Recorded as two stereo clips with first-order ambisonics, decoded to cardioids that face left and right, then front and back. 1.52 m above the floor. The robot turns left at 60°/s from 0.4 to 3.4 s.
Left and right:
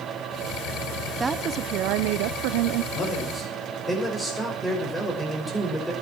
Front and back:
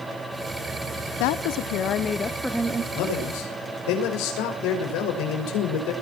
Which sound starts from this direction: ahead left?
A man speaking, at 2.9 s.